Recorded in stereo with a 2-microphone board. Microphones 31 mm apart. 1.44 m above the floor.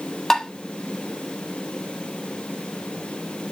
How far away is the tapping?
About 1.2 m.